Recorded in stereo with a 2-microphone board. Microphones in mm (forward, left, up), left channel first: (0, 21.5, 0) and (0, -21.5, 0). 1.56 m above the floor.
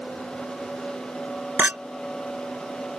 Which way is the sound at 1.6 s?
50° right (ahead or behind).